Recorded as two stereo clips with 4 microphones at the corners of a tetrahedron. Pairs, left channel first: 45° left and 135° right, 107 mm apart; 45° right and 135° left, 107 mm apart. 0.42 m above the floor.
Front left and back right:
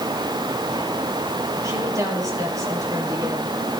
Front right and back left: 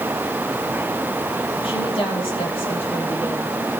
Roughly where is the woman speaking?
Right.